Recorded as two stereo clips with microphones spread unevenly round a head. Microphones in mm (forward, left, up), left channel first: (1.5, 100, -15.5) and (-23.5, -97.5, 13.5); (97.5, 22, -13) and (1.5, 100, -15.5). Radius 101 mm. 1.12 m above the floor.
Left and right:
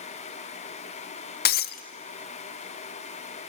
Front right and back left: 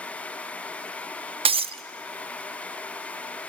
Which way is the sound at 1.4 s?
120° left.